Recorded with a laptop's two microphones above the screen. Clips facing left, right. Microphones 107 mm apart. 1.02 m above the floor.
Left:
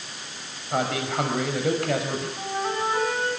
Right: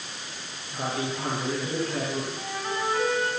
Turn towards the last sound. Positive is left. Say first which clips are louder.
# left 4 dB
turn(degrees=25)  # may be behind; listen again after turning